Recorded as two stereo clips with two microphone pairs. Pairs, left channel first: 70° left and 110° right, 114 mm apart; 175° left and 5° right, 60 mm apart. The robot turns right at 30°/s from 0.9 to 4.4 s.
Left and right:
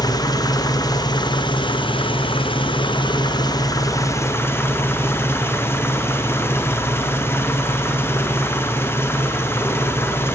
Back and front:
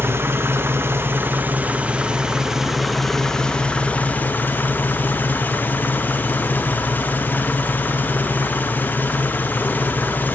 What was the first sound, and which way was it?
An engine running, 25° left.